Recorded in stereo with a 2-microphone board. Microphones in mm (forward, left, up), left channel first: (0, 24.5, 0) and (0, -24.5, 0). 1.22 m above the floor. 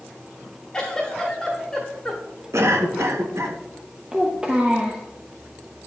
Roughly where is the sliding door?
No sliding door in this recording.